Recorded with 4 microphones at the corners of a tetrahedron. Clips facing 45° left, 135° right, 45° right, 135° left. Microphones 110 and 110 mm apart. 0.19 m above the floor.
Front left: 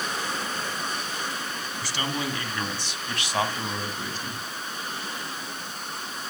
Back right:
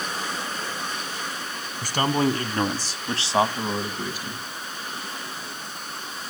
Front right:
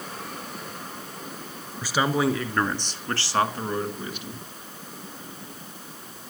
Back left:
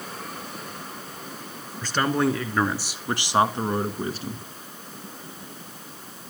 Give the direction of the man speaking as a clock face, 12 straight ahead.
4 o'clock.